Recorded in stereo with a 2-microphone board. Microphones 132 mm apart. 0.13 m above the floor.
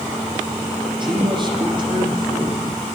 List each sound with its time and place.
1.0 s a man speaking: 30° right (ahead or behind), 7 m